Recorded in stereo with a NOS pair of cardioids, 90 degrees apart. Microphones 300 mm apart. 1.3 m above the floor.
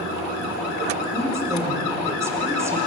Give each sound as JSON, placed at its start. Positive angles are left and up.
{"t": 1.1, "sound": "a woman speaking", "azimuth_deg": -10, "distance_m": 4.5}